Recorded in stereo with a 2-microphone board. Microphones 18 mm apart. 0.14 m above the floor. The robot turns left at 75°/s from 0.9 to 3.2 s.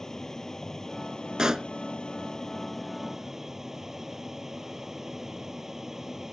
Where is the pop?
45° right (ahead or behind); by 1.7 s 30° right (ahead or behind).